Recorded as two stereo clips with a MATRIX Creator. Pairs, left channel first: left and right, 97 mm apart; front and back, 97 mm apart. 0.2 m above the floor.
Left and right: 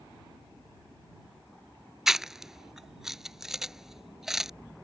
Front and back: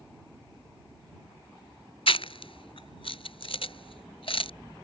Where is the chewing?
5° right.